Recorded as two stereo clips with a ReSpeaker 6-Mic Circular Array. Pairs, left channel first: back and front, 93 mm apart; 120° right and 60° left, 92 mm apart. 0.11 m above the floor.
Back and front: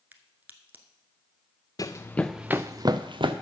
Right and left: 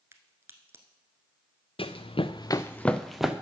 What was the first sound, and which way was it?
A crack, 45° left.